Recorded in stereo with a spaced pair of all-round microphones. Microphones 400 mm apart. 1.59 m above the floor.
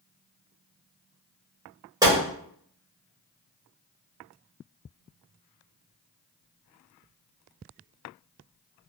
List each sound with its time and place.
2.0 s a gunshot: 10° right (ahead or behind), 1.3 m